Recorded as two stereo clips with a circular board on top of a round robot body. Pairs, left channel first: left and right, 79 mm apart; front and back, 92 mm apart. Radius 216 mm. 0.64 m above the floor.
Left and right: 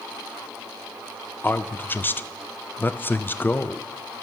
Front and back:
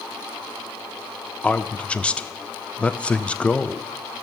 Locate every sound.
1.4 s a man speaking: 65° left, 0.7 m